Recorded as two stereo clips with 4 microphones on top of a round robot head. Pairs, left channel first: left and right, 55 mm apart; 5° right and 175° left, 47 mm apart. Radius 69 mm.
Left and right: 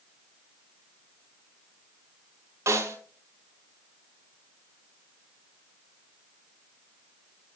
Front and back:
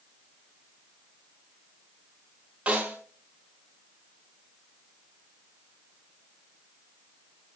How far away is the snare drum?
About 2.5 m.